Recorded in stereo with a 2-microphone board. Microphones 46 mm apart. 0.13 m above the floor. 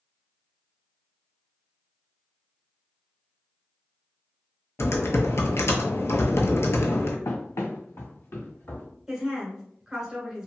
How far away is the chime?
I don't hear a chime.